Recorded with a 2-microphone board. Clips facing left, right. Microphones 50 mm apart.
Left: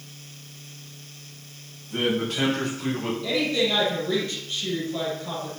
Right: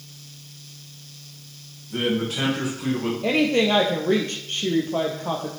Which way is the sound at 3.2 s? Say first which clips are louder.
Right 5 dB; 50° right (ahead or behind).